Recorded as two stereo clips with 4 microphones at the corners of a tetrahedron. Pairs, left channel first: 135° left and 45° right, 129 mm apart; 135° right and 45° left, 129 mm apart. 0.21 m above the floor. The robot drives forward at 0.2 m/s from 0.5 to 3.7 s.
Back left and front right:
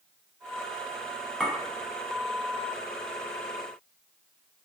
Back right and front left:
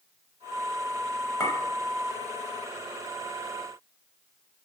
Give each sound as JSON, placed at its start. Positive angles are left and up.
{"t": 1.4, "sound": "a clink", "azimuth_deg": -135, "distance_m": 0.7}